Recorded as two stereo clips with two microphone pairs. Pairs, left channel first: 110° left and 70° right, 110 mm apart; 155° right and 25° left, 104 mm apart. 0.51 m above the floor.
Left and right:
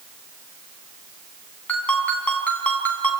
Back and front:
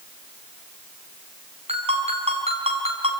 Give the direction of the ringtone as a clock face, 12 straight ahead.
11 o'clock.